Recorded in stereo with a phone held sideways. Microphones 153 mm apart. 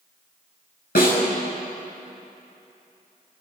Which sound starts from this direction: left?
A snare drum, at 0.9 s.